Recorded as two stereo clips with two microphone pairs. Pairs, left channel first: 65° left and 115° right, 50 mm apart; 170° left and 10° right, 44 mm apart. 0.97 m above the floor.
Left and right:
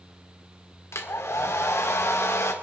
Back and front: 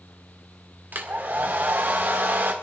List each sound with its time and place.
0.9 s a hair dryer: 35° left, 2 m